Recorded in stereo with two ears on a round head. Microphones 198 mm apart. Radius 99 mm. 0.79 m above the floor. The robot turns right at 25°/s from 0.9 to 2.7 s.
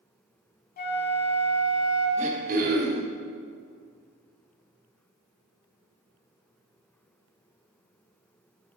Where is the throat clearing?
30° right (ahead or behind), 0.9 m; by 3.1 s 45° right (ahead or behind), 0.9 m.